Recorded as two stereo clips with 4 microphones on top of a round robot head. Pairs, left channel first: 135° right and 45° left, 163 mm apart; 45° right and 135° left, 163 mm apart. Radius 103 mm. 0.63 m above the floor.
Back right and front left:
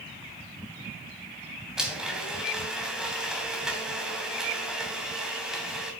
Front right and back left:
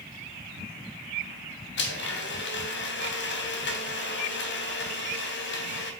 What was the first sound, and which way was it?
A blender, 45° right.